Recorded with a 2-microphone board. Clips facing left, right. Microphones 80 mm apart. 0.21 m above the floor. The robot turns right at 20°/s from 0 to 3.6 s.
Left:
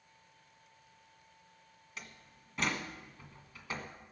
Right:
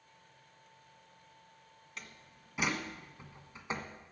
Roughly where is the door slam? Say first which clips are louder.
Even; centre.